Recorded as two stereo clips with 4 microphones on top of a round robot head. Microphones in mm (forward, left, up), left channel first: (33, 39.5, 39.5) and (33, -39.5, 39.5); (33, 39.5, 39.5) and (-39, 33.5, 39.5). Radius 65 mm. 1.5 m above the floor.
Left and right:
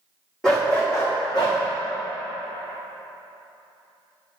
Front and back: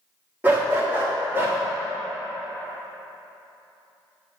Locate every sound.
0.4 s a dog barking: 170° left, 0.9 m; by 1.6 s 135° left, 1.2 m